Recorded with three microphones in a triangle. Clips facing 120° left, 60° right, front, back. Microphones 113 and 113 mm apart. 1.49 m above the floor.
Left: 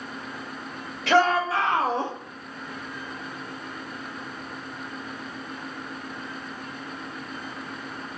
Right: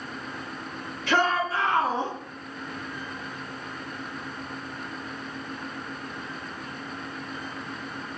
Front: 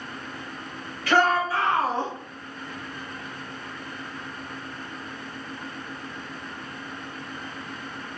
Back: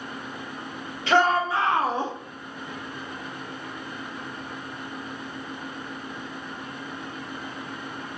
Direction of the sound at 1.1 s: 115° left.